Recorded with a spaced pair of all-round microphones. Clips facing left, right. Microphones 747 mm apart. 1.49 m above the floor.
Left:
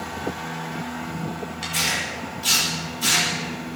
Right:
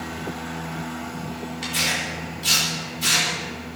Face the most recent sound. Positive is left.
turn(degrees=-10)  # may be behind; listen again after turning